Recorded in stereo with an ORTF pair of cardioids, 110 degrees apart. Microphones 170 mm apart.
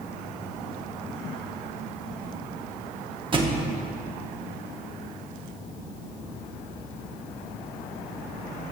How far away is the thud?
About 1.1 m.